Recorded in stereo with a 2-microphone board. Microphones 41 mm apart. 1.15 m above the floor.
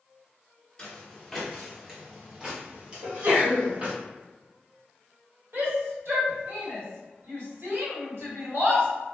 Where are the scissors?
I don't hear scissors.